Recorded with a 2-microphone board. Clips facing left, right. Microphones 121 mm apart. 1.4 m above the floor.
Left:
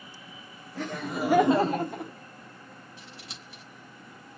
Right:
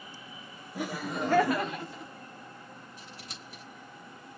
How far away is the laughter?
About 0.8 m.